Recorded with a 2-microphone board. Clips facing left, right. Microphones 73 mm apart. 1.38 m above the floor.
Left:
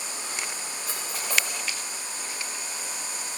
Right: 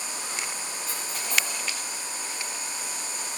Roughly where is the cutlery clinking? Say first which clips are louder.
Left 3 dB; left.